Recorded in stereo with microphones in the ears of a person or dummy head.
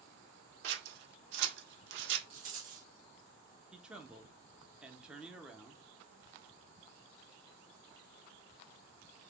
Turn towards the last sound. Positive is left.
turn(degrees=-5)  # may be behind; listen again after turning